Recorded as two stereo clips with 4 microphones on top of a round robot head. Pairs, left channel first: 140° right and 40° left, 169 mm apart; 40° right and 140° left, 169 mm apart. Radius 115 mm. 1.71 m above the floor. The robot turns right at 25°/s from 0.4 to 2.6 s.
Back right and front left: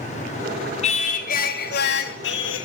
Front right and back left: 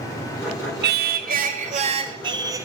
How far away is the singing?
About 1.4 m.